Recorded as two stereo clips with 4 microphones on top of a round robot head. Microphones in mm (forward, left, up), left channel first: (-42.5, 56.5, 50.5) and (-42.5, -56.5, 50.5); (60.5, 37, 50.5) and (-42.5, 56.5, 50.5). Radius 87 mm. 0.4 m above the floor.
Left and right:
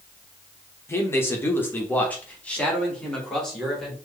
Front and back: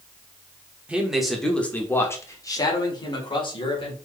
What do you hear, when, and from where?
0.9 s a man speaking: 110° left, 1.2 m; by 3.9 s 5° left, 2 m